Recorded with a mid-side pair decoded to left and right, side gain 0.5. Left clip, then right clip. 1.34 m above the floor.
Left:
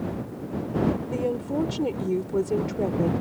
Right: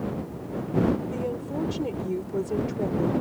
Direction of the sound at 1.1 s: 25° left.